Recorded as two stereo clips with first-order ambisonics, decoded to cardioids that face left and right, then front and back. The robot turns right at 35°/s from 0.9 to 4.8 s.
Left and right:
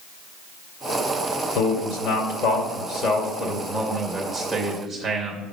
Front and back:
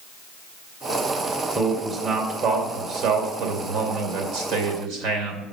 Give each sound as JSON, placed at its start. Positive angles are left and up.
{"t": 1.6, "sound": "a man speaking", "azimuth_deg": 80, "distance_m": 2.5}